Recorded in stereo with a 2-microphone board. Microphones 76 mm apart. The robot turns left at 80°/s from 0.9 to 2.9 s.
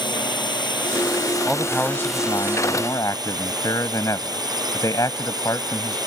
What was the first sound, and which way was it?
A drone, 100° left.